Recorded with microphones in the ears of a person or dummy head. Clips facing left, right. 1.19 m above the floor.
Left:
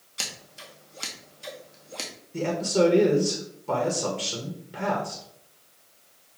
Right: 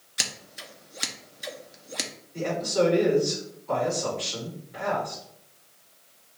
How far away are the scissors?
About 0.5 m.